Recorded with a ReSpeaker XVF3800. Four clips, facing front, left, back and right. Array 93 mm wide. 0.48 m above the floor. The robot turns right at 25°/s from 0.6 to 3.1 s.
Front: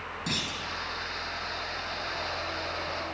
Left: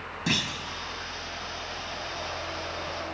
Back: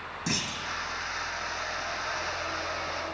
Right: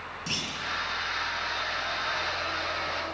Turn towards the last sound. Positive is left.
turn(degrees=170)